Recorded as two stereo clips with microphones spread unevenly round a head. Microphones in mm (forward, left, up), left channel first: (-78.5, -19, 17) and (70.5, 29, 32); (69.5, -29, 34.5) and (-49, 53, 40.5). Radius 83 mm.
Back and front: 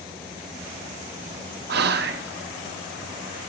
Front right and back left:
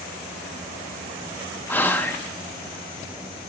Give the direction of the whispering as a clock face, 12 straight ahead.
11 o'clock.